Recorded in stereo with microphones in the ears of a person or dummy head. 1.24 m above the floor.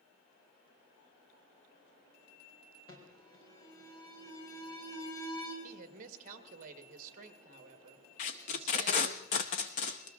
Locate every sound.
2.9 s an alarm: 25° left (ahead or behind), 4 m
5.6 s a woman speaking: 45° right (ahead or behind), 1.6 m
8.2 s tape being pulled: 35° left (ahead or behind), 0.8 m